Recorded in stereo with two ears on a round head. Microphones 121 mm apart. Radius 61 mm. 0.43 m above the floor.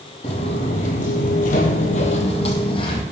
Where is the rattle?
I don't hear a rattle.